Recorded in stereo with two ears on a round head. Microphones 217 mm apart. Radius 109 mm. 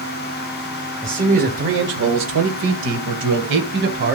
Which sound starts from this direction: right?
A man speaking, at 1.0 s.